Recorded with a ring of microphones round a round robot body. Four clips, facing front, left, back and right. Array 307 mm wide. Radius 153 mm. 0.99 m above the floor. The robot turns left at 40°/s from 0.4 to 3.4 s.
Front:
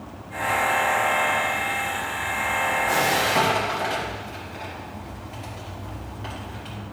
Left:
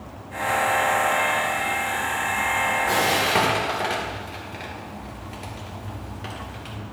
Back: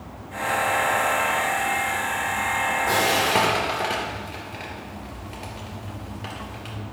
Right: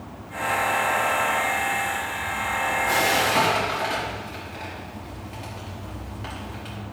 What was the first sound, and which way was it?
Frying, 160° left.